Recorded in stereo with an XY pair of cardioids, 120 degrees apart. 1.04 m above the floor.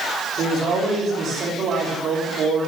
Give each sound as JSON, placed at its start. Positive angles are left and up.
{"t": 0.4, "sound": "a man speaking", "azimuth_deg": -65, "distance_m": 2.5}